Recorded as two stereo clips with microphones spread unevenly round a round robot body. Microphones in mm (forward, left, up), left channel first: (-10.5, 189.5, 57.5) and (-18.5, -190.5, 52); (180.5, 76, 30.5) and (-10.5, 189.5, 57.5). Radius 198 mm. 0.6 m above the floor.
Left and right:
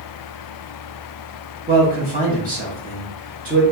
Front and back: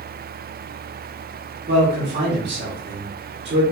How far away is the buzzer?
I don't hear a buzzer.